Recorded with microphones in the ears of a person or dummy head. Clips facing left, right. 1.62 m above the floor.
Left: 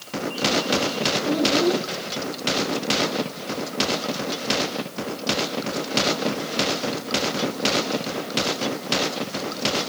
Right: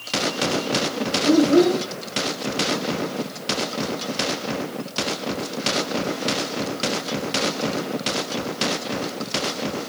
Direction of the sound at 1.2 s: 55° right (ahead or behind).